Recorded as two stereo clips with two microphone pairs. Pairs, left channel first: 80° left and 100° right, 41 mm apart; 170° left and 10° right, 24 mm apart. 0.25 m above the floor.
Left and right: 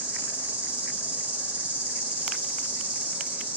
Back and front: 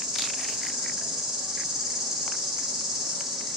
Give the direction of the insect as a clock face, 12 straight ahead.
2 o'clock.